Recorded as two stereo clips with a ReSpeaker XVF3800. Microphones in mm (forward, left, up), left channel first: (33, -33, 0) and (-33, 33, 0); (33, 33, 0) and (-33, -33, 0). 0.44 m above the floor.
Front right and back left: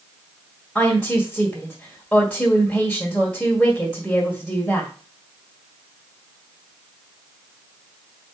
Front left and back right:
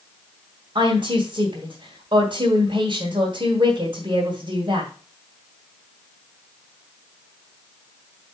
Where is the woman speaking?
125° right, 1.9 m.